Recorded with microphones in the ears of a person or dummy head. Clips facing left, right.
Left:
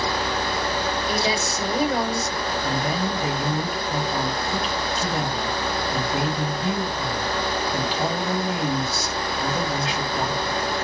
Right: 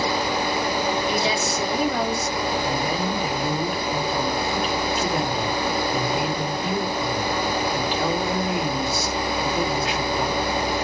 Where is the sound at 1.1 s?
35° left (ahead or behind), 2 m.